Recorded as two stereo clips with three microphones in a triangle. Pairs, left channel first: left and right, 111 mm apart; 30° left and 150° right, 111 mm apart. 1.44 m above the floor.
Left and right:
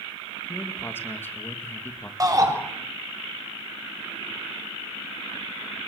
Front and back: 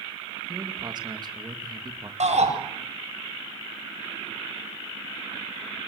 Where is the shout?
150° right, 7.5 m.